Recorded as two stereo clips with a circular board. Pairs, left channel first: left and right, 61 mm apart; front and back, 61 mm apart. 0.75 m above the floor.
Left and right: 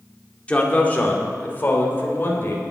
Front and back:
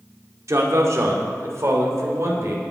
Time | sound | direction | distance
0.5 | a man speaking | 155° left | 2.5 m